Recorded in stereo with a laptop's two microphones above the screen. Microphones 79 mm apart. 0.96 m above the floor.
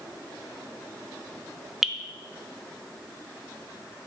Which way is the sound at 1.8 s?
5° right (ahead or behind).